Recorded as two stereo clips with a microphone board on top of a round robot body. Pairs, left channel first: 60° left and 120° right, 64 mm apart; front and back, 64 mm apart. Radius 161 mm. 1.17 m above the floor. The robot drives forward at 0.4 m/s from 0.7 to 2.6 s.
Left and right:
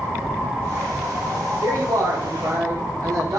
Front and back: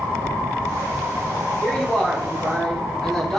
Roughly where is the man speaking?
Right.